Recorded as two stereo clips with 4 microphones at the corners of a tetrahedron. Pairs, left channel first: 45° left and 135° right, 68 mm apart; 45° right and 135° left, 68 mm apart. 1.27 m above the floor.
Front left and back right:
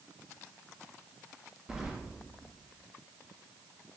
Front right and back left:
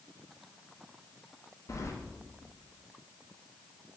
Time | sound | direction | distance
1.7 | keys jangling | 60° right | 0.5 m